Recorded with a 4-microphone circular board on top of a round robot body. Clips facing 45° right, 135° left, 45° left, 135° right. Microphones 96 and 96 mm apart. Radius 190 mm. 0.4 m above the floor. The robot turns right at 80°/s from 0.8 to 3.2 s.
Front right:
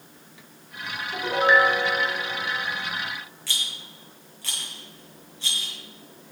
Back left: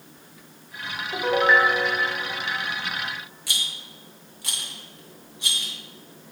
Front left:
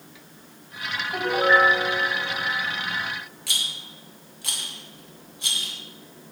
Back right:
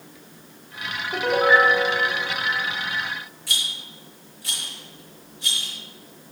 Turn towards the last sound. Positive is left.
turn(degrees=60)